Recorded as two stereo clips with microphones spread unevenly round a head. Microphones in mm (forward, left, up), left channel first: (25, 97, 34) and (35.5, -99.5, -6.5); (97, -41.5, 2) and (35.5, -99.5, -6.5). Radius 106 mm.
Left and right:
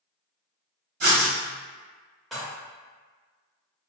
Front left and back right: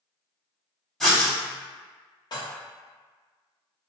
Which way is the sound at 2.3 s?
Straight ahead.